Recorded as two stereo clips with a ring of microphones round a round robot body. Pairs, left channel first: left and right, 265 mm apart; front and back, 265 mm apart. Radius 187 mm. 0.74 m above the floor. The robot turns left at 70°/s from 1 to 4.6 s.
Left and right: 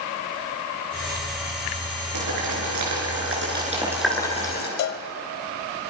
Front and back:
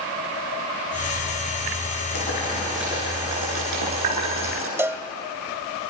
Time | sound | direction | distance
2.1 | boiling | 45° right | 6.5 m
4.8 | a cowbell | 100° left | 0.9 m